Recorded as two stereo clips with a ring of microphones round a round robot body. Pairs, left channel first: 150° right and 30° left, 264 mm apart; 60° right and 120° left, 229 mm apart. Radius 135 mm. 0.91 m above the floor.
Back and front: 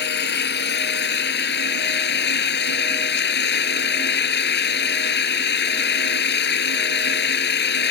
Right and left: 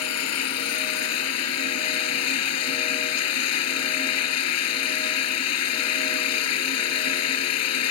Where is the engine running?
95° right.